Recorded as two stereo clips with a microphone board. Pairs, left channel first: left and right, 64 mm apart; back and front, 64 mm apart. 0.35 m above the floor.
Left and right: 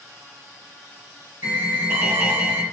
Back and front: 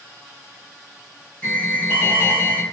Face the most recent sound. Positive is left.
turn(degrees=-130)